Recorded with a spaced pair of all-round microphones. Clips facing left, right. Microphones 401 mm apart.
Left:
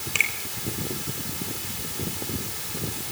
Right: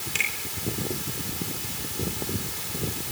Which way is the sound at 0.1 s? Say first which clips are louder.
Left 1 dB; 30° right (ahead or behind).